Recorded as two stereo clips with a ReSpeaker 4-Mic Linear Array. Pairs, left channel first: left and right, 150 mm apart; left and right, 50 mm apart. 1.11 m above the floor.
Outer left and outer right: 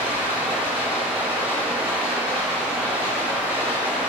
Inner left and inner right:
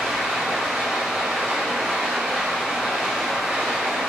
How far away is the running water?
About 3.5 m.